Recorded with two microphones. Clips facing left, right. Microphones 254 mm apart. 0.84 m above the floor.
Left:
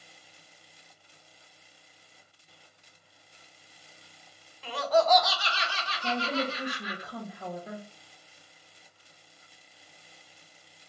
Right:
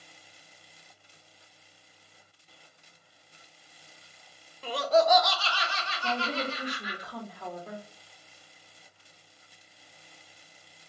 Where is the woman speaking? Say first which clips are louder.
Left 2 dB; 10° left (ahead or behind), 0.7 m.